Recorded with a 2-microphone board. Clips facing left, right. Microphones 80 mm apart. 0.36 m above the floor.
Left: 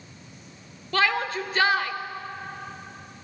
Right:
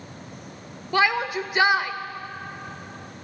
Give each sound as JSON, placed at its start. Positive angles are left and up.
{"t": 0.9, "sound": "a shout", "side_deg": -15, "distance_m": 0.9}